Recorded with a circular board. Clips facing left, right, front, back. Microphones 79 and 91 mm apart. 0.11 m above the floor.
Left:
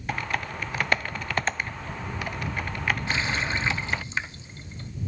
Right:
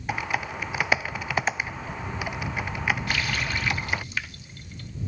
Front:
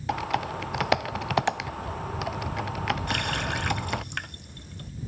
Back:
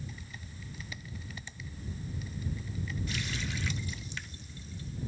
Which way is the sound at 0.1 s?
5° right.